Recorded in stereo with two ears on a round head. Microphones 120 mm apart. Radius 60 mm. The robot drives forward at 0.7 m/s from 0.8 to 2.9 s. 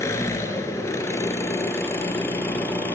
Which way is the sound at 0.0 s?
20° left (ahead or behind).